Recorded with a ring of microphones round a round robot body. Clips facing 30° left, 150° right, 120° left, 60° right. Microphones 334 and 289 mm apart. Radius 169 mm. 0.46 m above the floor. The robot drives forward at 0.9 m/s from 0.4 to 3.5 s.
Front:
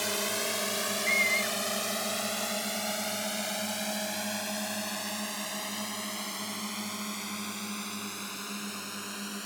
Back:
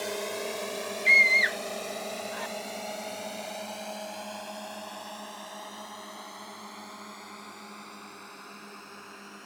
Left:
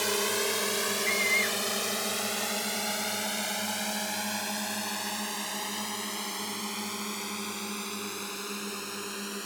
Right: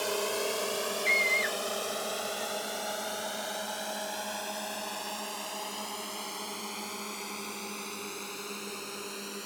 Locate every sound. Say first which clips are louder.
0.0 s a drone: back 1 dB, left 1 dB; 80° left; by 9.5 s 55° left
1.1 s a scream: even, left 1 dB; 125° right; by 2.5 s 170° right